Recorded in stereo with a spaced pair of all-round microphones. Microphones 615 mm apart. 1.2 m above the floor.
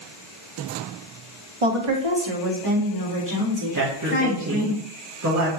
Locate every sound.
1.6 s a woman speaking: 55° right (ahead or behind), 0.9 m; by 4.7 s 25° right (ahead or behind), 3 m
3.7 s a man speaking: 30° right (ahead or behind), 1.4 m